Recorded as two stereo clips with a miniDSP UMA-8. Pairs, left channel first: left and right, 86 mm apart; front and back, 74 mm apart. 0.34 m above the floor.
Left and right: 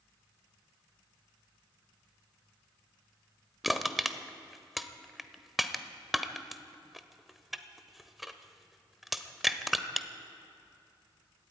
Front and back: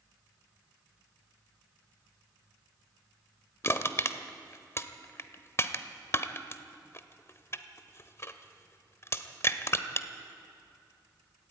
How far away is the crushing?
About 0.9 m.